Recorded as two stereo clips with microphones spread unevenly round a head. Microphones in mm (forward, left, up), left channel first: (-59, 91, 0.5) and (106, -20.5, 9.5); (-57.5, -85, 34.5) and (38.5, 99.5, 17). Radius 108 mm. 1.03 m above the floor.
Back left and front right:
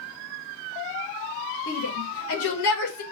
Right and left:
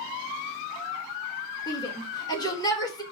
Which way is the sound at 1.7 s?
170° left.